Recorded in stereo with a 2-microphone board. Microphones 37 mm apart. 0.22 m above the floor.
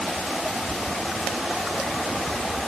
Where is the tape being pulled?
No tape being pulled in this recording.